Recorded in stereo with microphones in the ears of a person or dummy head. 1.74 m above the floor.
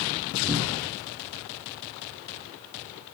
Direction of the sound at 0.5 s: 15° right (ahead or behind).